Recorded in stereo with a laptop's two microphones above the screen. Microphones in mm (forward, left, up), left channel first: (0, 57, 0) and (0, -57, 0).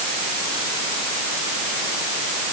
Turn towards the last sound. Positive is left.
No sound to turn to.